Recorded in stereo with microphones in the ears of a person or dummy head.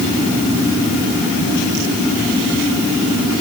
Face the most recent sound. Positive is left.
No sound to turn to.